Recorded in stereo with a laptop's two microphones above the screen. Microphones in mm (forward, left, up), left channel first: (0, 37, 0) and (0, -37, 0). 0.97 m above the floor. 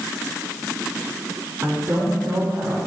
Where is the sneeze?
No sneeze in this recording.